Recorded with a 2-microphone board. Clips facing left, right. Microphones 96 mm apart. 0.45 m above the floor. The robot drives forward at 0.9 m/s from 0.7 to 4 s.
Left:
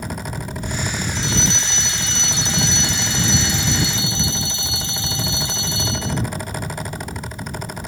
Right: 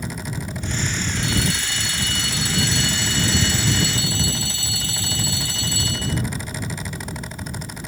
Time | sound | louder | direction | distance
1.1 | a fire alarm | right 1 dB | 25° left (ahead or behind) | ?